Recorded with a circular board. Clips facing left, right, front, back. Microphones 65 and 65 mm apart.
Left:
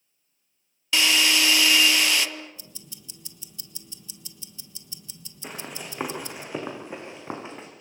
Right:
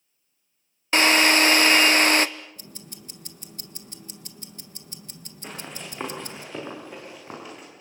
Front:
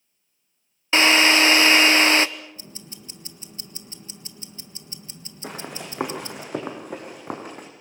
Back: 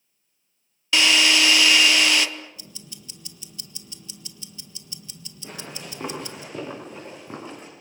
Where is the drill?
50° right, 0.8 m.